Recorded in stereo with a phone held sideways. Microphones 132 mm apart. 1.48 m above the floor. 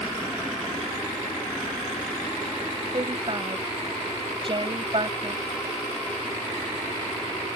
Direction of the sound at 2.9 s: 40° right (ahead or behind).